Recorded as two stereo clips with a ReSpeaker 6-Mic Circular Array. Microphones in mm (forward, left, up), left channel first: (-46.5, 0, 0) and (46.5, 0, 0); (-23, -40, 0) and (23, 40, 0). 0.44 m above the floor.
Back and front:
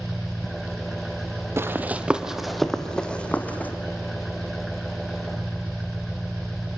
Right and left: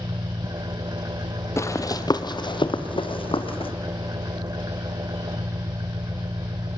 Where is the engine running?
90° left, 0.9 m.